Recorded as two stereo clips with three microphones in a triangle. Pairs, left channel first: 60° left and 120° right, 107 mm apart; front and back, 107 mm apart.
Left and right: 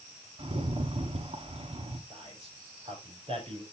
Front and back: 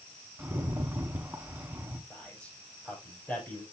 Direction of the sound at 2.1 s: 80° right.